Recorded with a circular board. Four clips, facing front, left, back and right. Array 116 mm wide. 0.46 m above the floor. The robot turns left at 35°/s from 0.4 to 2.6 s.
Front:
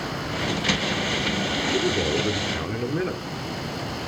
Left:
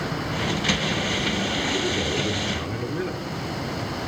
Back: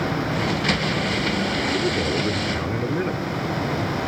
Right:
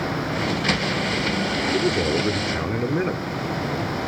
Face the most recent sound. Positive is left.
turn(degrees=-100)